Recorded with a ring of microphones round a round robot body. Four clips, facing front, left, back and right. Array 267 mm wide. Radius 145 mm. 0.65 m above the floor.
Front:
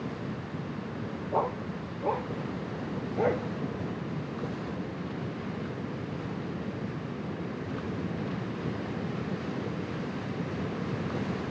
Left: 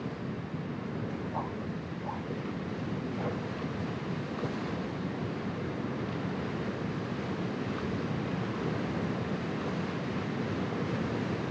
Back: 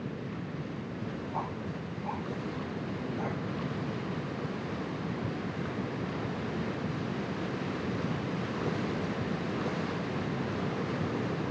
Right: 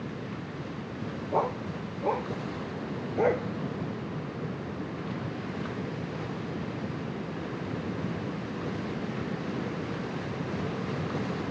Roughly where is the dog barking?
Ahead right.